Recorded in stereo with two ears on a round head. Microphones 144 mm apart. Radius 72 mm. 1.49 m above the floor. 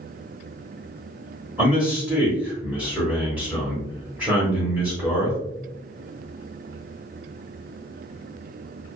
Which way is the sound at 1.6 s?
10° right (ahead or behind).